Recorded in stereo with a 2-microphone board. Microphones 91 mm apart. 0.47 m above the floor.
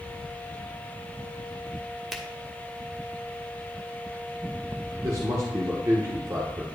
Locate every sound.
2.1 s a finger snap: centre (ahead or behind), 1.2 m
5.0 s a man speaking: 35° right (ahead or behind), 1.1 m